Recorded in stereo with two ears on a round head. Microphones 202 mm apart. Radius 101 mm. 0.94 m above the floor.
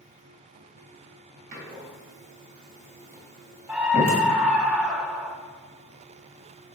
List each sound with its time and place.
1.5 s a door slam: 40° right (ahead or behind), 3.5 m
3.7 s a scream: 5° right (ahead or behind), 1.0 m